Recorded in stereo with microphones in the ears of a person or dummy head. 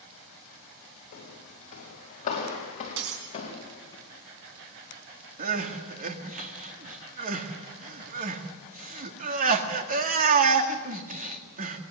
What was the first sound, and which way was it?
Footsteps, 50° left (ahead or behind).